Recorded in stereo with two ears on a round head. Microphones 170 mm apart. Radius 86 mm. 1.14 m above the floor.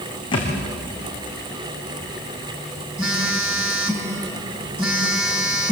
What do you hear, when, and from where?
0.3 s a thud: 25° left (ahead or behind), 6 m
3.0 s a phone buzzing: 5° right (ahead or behind), 4.5 m